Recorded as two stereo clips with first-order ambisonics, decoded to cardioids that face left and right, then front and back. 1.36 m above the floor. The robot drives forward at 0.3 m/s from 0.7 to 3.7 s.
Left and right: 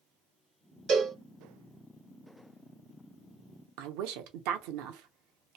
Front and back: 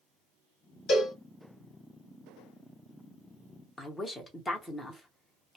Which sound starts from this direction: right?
A woman speaking, at 3.8 s.